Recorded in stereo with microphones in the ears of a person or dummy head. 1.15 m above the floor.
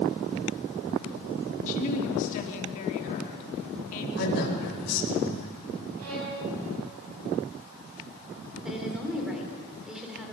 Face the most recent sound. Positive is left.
turn(degrees=-5)  # may be behind; listen again after turning